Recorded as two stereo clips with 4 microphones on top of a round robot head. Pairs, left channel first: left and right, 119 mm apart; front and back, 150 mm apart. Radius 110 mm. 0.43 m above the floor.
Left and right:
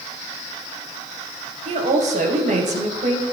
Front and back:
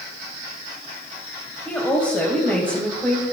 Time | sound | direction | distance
1.6 | a woman speaking | 85° right | 2.5 m